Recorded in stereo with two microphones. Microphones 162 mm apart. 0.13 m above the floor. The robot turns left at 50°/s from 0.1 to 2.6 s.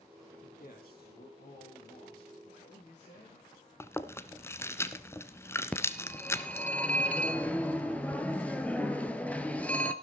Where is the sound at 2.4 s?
55° left (ahead or behind), 9.5 m; by 3.5 s 50° left (ahead or behind), 9.5 m.